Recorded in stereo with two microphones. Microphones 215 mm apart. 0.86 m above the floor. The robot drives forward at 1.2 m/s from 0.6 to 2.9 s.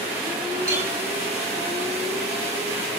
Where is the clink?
65° left (ahead or behind), 4.5 m; by 0.9 s 60° left (ahead or behind), 5 m.